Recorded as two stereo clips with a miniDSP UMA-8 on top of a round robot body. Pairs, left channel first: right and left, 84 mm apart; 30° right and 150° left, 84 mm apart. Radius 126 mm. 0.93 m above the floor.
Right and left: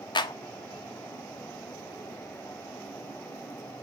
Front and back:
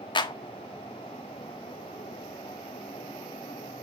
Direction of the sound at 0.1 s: 60° right.